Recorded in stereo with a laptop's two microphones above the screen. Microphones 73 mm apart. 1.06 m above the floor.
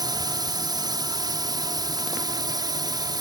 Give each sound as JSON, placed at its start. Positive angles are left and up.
{"t": 0.0, "sound": "a drone", "side_deg": -65}